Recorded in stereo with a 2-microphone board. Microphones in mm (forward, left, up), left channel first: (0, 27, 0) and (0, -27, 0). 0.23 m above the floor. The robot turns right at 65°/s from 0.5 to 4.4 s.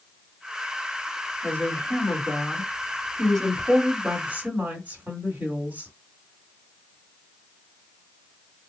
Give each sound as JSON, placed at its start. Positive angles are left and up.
{"t": 1.4, "sound": "a woman speaking", "azimuth_deg": 50, "distance_m": 1.7}